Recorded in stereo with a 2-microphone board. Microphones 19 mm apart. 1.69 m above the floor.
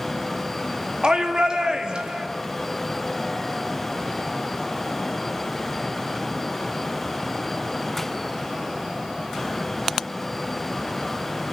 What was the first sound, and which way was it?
A shout, 45° right (ahead or behind).